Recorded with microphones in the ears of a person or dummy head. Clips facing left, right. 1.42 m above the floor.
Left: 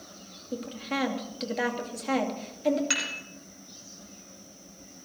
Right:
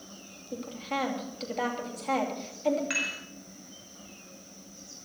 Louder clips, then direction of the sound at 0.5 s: Left 2 dB; 20° left (ahead or behind).